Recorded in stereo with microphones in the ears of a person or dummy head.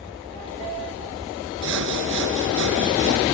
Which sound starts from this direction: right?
Sawing, at 1.6 s.